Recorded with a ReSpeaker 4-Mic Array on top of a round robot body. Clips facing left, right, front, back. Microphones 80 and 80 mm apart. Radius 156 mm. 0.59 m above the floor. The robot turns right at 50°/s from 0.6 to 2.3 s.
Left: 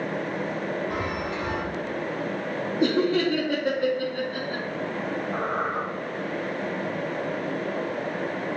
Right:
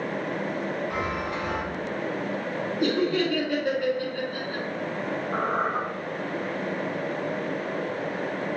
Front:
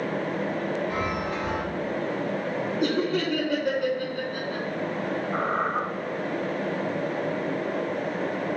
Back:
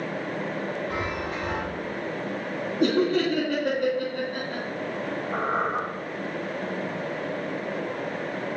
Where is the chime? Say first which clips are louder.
Even, front 2 dB; 115° left, 3.5 m; by 1.6 s 150° left, 3.5 m.